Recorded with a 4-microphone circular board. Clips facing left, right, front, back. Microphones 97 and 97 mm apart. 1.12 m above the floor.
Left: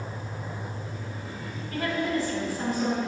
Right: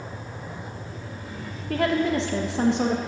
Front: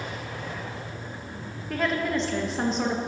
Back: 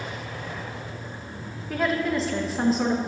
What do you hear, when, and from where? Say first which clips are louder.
1.7 s a woman speaking: right 5 dB, back 2 dB; 90° right, 1.3 m